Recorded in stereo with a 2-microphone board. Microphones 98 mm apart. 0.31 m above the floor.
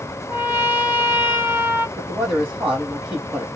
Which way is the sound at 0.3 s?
20° right (ahead or behind).